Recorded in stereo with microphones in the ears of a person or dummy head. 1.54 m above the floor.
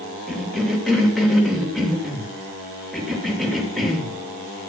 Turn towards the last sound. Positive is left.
turn(degrees=0)  # may be behind; listen again after turning